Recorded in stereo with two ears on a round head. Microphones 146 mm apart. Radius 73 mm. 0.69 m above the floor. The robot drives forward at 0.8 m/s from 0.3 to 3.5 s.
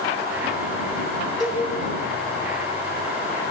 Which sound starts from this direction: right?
A cowbell, at 1.4 s.